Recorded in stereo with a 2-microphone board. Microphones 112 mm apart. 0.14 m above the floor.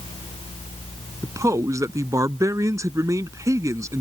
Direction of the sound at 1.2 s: 30° right (ahead or behind).